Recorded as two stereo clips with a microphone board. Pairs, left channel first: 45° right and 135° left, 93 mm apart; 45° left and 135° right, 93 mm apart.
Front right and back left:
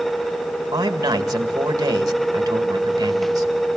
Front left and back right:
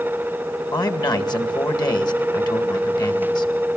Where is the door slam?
No door slam in this recording.